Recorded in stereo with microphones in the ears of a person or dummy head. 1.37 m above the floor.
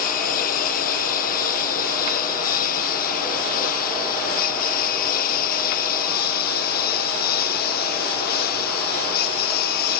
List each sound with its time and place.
0.0 s a lawn mower: 50° left (ahead or behind); by 10.0 s 55° left (ahead or behind)